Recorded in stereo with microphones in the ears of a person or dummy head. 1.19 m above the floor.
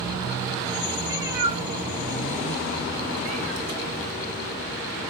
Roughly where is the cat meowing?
Centre.